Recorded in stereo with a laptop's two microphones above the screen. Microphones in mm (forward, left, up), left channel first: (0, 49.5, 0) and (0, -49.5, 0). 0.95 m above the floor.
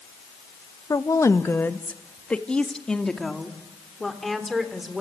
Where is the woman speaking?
35° left (ahead or behind), 1.1 m; by 5.0 s centre (ahead or behind), 4 m.